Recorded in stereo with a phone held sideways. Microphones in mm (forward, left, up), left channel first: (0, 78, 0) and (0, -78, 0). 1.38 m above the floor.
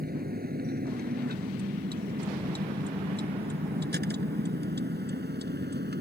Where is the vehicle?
65° right (ahead or behind); by 6.0 s 80° right.